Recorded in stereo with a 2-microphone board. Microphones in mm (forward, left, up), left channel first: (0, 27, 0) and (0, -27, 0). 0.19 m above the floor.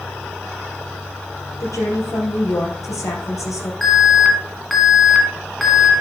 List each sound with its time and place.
1.6 s a woman speaking: 70° left (ahead or behind), 3.5 m
3.8 s an alarm: centre (ahead or behind), 1.9 m